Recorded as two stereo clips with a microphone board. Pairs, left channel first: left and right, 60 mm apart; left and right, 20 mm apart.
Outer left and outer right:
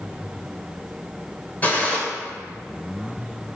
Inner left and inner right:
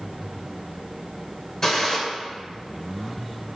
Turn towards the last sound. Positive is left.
turn(degrees=25)  # may be behind; listen again after turning